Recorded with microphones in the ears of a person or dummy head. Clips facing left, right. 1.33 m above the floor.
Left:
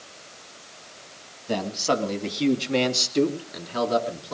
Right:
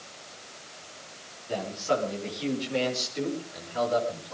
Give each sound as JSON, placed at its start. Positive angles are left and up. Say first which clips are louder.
{"t": 1.5, "sound": "a man speaking", "louder": "left 3 dB", "side_deg": 70, "distance_m": 2.5}